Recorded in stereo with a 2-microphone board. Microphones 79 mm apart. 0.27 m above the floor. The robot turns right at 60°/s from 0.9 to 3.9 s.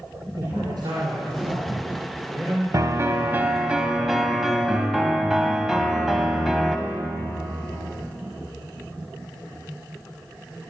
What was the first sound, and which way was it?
A man speaking, 120° right.